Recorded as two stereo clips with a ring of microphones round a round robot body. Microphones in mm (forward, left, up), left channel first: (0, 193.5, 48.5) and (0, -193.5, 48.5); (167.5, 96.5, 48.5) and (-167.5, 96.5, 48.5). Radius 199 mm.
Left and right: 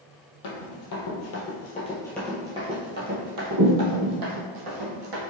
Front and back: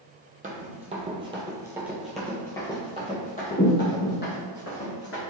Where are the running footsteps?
115° left, 1.2 m; by 5.2 s 60° right, 1.8 m.